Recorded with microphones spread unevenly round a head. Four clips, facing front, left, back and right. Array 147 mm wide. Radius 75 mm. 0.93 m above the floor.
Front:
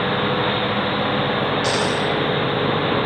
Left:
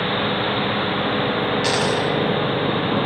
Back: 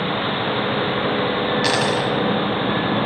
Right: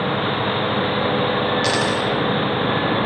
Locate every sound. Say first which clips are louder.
1.6 s a dropped coin: even, back 1 dB; 155° left, 1.5 m